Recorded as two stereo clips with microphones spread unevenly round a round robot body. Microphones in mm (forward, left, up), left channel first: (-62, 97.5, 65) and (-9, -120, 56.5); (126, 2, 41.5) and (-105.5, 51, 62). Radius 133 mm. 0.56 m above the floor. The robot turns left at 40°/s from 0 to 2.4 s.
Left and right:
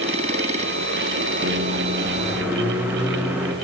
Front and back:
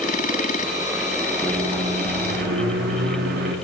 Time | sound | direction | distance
1.4 | a microwave | 115° right | 0.8 m